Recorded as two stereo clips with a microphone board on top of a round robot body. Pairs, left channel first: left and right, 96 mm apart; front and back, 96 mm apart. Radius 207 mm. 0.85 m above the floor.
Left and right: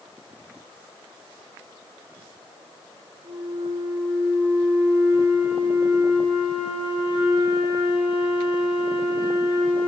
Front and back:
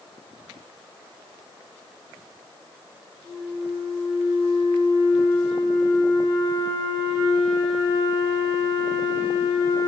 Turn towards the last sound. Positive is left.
turn(degrees=-120)